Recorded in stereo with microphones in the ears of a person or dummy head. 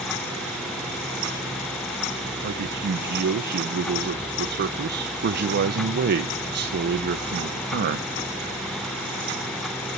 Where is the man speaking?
50° right (ahead or behind), 0.9 m.